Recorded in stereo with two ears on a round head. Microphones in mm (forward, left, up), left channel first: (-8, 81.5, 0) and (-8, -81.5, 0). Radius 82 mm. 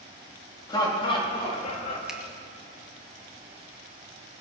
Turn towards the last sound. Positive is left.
turn(degrees=-5)  # may be behind; listen again after turning